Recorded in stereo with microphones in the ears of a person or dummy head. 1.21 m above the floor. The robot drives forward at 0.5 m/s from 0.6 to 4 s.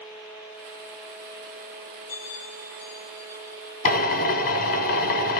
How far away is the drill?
About 0.6 m.